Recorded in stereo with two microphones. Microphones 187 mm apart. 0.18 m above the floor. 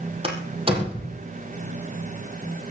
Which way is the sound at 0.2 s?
30° right (ahead or behind).